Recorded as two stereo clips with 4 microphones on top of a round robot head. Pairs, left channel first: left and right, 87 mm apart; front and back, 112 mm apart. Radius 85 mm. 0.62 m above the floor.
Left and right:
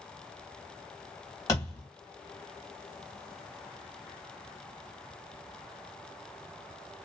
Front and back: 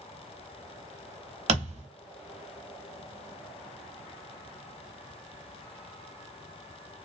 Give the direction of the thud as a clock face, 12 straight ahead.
7 o'clock.